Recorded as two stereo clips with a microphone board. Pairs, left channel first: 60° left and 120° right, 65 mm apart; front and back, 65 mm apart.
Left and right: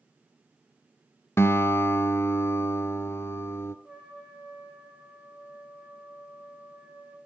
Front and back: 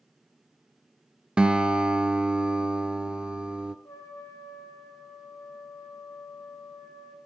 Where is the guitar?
105° left, 0.8 m.